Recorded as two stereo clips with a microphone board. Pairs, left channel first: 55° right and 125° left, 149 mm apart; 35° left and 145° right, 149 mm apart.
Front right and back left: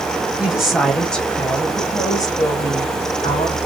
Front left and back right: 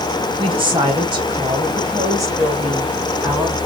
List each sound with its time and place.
0.4 s a woman speaking: 155° right, 1.8 m; by 3.6 s 70° right, 2.0 m